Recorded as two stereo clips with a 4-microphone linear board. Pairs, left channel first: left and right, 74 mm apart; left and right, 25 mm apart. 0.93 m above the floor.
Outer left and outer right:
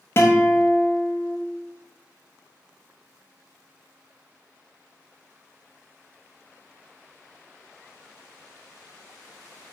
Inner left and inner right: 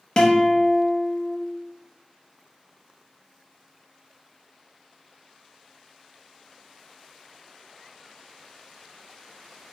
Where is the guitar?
35° left (ahead or behind), 0.8 m.